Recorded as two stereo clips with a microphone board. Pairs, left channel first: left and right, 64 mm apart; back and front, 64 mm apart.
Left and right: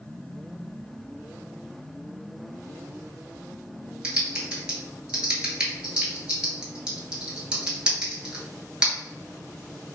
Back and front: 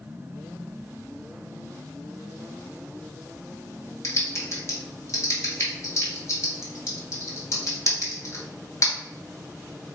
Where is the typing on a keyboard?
165° right, 1.0 m.